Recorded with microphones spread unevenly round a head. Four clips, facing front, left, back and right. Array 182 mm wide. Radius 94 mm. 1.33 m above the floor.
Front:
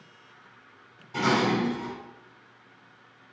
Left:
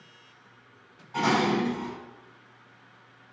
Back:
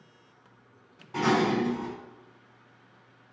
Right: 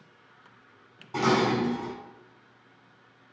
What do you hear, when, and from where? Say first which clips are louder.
1.1 s dishes clattering: even, even; 115° right, 3 m